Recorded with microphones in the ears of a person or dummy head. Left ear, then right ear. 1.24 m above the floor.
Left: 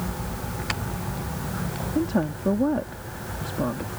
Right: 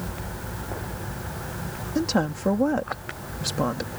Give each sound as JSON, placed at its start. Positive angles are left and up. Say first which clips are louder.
{"t": 1.9, "sound": "a woman speaking", "louder": "right 2 dB", "side_deg": -80}